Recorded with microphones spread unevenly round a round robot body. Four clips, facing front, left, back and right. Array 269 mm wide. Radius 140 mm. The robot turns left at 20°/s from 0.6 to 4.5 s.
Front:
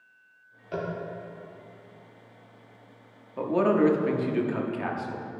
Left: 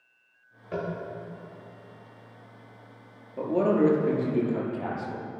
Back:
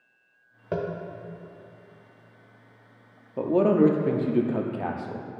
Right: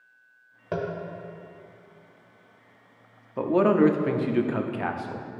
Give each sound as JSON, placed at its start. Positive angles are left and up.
{"t": 0.7, "sound": "tapping", "azimuth_deg": -150, "distance_m": 0.9}
{"t": 3.4, "sound": "a man speaking", "azimuth_deg": -120, "distance_m": 0.7}